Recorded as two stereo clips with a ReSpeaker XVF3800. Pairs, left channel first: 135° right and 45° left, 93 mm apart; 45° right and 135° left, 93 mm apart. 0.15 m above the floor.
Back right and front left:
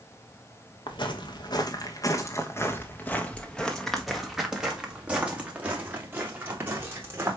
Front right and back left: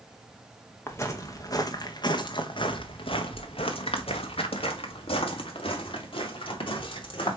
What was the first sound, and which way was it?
Footsteps, 110° right.